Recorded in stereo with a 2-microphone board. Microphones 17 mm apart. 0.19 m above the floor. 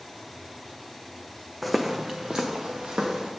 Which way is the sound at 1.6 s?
5° left (ahead or behind).